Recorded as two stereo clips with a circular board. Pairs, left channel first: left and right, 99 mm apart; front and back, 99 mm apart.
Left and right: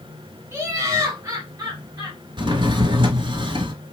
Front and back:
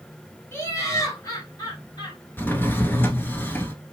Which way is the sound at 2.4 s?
65° right.